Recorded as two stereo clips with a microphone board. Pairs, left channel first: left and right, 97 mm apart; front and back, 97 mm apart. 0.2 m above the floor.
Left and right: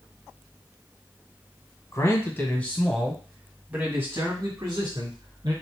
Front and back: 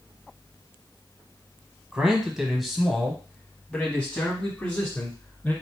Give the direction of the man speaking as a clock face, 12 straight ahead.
8 o'clock.